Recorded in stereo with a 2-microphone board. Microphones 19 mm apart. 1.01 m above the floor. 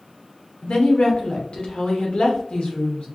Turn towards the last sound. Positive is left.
turn(degrees=70)  # may be behind; listen again after turning